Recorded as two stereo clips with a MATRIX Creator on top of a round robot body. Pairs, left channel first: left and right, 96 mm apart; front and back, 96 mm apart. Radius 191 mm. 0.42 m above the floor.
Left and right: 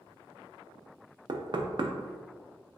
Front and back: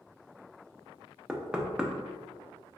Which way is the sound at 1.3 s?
100° right.